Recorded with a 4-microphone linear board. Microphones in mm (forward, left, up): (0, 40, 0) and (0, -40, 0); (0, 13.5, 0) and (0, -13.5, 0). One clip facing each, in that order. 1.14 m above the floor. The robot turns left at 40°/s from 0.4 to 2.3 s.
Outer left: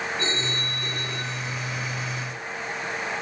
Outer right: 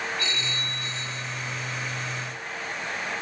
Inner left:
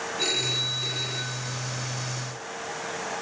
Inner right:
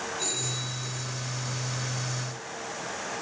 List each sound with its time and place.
0.2 s a phone ringing: 145° left; by 1.7 s 95° left